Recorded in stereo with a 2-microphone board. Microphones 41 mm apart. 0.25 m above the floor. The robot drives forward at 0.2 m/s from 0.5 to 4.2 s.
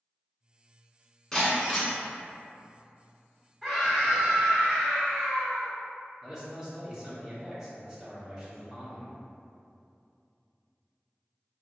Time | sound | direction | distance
1.3 | breaking glass | 5° left (ahead or behind) | 1.2 m
3.6 | a scream | 5° right (ahead or behind) | 1.2 m
6.2 | a man speaking | 20° right (ahead or behind) | 1.0 m